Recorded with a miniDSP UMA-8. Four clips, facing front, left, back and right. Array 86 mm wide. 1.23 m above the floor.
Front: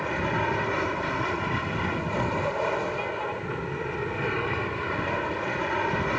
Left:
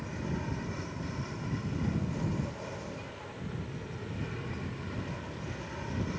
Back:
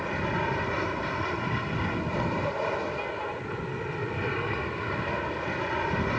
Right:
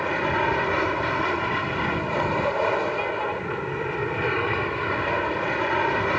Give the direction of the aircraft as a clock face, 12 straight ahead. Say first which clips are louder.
Right 14 dB, front 2 dB; 3 o'clock.